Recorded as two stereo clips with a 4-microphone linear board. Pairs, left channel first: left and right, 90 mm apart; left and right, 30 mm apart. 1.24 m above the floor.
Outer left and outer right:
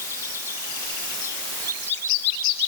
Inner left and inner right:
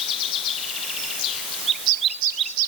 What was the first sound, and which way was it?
Only background noise.